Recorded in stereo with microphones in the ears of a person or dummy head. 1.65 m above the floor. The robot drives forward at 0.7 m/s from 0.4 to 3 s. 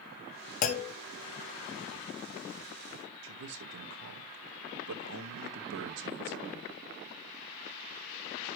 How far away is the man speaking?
About 1.8 m.